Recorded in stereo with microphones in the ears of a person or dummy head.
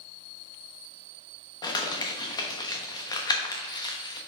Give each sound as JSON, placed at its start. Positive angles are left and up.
{"t": 1.6, "sound": "crumpling", "side_deg": 25, "distance_m": 1.1}